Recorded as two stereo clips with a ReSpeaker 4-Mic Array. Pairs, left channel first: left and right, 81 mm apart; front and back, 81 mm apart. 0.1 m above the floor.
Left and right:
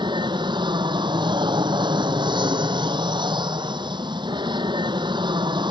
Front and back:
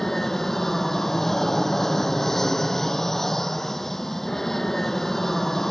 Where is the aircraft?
85° right.